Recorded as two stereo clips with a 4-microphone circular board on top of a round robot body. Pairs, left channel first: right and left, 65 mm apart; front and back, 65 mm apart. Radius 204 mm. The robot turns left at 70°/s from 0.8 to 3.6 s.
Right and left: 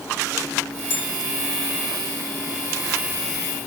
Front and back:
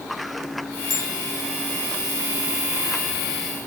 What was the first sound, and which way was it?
A bell, 145° right.